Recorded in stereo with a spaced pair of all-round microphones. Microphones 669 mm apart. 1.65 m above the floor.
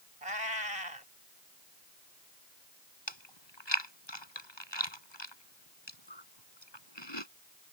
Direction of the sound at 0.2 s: 60° right (ahead or behind).